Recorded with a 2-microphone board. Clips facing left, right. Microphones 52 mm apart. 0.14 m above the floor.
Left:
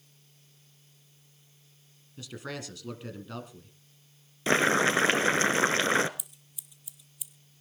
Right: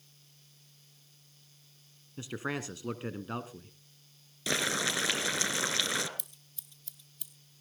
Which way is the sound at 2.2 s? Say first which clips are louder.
Right 3 dB; 25° right (ahead or behind).